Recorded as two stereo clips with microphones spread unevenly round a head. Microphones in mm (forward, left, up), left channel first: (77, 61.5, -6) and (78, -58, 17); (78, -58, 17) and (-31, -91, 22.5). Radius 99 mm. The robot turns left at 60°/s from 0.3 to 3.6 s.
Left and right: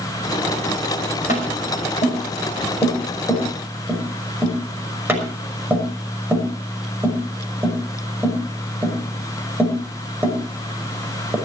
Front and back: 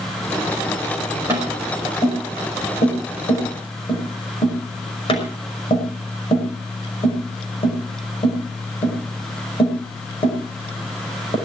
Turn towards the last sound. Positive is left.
turn(degrees=-15)